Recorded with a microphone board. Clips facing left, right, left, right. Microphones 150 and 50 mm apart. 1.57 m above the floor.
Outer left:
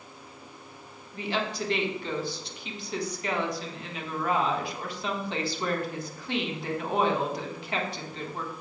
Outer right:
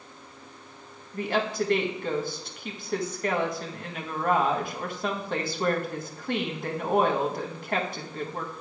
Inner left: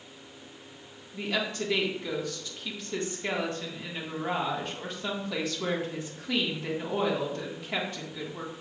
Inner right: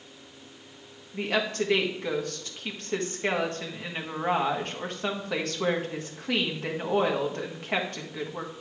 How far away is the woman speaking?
About 1.5 m.